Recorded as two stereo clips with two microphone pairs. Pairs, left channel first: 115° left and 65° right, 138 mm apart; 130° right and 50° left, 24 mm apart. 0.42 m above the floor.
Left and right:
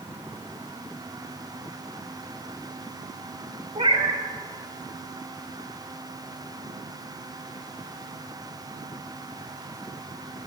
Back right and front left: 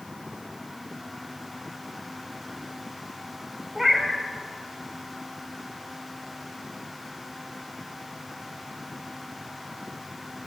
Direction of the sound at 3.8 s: 25° right.